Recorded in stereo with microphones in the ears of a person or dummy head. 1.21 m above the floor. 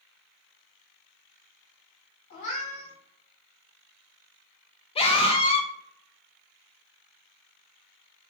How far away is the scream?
About 0.6 m.